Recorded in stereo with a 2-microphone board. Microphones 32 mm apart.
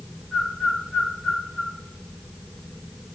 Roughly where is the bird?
Centre.